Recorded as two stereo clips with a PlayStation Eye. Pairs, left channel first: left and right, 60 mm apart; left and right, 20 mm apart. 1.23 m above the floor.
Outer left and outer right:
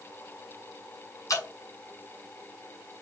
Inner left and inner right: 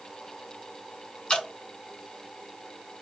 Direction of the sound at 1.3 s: 60° left (ahead or behind).